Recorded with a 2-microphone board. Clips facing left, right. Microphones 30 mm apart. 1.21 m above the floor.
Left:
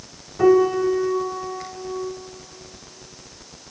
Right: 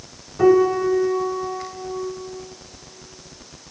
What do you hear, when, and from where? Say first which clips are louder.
0.4 s a piano: right 1 dB; 5° right (ahead or behind), 1.5 m